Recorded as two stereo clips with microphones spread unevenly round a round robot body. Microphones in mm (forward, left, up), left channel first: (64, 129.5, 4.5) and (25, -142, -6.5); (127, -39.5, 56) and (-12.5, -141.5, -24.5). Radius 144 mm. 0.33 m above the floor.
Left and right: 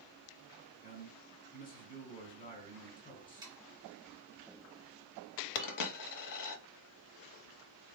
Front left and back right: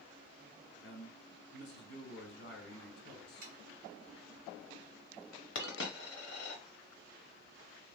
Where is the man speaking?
40° left, 1.6 m.